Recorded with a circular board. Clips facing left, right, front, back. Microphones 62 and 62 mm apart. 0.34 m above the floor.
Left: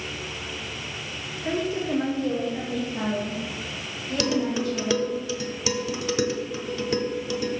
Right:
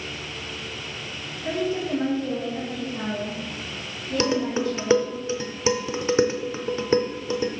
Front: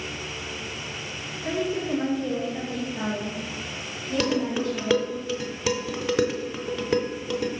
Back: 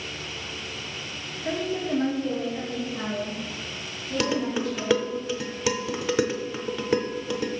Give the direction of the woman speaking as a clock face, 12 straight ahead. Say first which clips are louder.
Right 1 dB, front 1 dB; 9 o'clock.